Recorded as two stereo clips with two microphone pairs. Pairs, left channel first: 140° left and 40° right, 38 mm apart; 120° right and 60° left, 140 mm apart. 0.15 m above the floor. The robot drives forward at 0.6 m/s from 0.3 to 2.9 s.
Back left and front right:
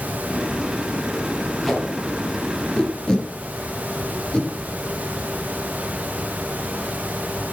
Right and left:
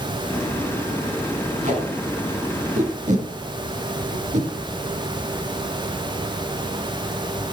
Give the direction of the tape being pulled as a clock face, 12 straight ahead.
10 o'clock.